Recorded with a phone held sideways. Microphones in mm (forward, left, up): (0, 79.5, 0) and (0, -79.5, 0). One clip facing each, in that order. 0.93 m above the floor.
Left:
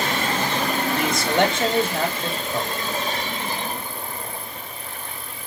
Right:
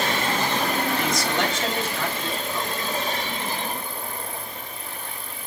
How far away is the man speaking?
About 5 m.